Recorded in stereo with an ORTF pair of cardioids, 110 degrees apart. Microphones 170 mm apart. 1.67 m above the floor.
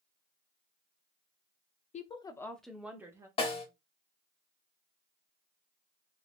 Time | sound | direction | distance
1.9 | a woman speaking | 45° left | 0.7 m
3.4 | a snare drum | 35° left | 1.3 m